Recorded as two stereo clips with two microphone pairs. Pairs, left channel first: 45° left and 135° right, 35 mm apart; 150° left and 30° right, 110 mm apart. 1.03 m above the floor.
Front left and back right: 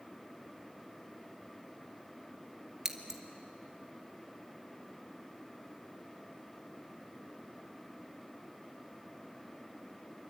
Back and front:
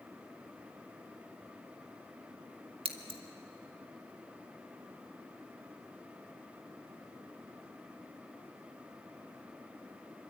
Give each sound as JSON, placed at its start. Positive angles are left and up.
{"t": 2.9, "sound": "scissors", "azimuth_deg": -60, "distance_m": 2.0}